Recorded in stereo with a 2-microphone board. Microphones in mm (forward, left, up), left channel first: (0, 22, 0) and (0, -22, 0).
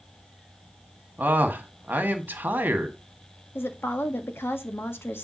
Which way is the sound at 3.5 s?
65° left (ahead or behind).